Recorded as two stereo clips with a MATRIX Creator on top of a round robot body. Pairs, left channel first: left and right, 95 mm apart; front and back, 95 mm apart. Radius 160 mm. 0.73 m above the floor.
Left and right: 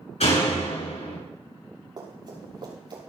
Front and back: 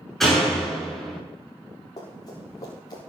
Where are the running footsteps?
45° right, 6.5 m; by 3.0 s 50° right, 7.5 m.